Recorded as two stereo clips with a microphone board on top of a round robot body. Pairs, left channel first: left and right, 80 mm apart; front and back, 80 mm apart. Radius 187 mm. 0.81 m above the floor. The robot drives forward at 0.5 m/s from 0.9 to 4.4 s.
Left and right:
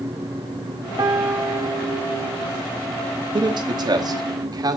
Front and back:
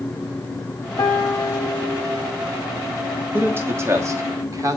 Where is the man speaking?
115° right, 1.7 m; by 4.8 s 130° right, 1.9 m.